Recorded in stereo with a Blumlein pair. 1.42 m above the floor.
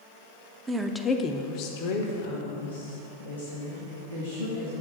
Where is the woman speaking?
20° right, 0.6 m; by 4.8 s 75° left, 3 m.